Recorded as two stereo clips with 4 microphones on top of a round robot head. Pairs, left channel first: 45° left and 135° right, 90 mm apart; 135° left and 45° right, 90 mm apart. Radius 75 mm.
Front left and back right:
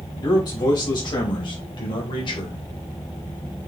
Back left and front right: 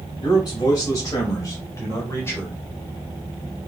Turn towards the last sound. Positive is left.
turn(degrees=70)